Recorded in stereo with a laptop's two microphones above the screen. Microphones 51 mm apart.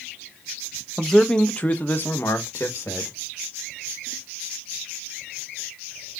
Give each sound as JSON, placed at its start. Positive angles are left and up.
{"t": 1.0, "sound": "a man speaking", "side_deg": 0, "distance_m": 0.9}